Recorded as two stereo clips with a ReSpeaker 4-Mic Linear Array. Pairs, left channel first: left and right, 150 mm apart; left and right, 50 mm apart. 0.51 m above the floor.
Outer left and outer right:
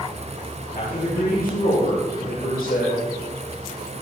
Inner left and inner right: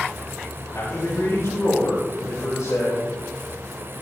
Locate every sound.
0.7 s a man speaking: 80° left, 8 m